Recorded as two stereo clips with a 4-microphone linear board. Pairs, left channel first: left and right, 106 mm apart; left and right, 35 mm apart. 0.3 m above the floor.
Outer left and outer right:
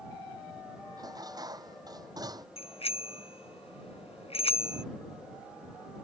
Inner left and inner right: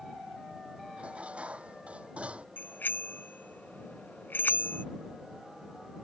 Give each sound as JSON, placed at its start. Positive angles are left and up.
{"t": 1.0, "sound": "dishes clattering", "side_deg": -35}
{"t": 2.6, "sound": "a bicycle bell", "side_deg": 70}